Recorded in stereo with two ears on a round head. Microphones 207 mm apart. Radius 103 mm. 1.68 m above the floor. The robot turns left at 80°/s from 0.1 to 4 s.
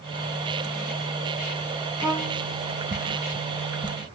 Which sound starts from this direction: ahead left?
A violin, at 2.0 s.